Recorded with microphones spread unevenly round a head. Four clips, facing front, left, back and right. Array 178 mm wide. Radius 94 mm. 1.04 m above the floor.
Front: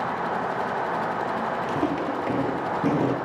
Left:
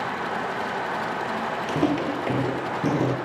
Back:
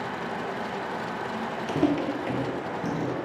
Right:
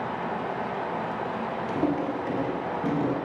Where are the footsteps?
160° left, 1.3 m; by 3.2 s 40° left, 1.5 m.